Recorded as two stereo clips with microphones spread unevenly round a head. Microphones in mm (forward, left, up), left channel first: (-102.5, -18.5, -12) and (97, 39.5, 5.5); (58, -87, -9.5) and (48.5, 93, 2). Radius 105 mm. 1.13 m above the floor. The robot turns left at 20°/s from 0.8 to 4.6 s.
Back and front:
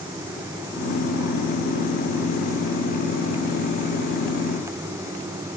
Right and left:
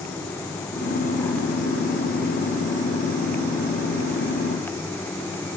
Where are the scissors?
No scissors in this recording.